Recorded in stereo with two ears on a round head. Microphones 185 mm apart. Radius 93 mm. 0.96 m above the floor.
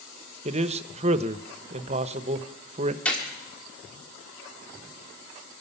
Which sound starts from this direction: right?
A man speaking, at 0.5 s.